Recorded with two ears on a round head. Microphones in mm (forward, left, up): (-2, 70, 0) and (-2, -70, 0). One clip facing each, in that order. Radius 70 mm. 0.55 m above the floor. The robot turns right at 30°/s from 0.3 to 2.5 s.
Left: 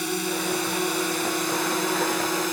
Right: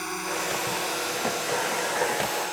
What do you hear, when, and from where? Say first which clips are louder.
0.0 s a drone: left 4 dB; 40° left (ahead or behind); by 2.5 s 70° left (ahead or behind)